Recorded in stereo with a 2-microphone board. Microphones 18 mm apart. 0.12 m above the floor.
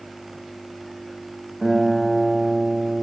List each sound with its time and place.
1.6 s a guitar: 45° right (ahead or behind), 2 m